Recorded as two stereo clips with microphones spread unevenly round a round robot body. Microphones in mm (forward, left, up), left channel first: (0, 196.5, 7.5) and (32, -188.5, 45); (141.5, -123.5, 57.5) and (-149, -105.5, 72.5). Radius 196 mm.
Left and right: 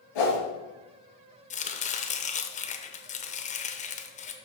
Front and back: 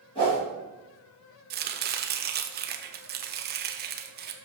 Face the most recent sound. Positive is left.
turn(degrees=145)